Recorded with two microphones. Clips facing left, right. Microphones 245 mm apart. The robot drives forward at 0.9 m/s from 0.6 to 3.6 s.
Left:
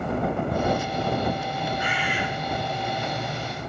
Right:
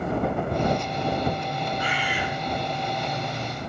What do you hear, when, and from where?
1.8 s a bird: 20° left (ahead or behind), 3.5 m